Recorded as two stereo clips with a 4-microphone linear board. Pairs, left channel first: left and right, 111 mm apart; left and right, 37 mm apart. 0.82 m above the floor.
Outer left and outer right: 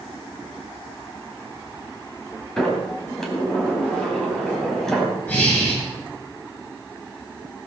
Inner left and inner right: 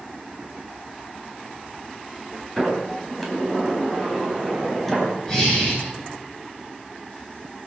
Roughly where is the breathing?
Centre.